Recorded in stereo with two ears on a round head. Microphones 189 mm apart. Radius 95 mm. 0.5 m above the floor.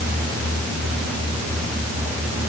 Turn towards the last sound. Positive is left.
No sound to turn to.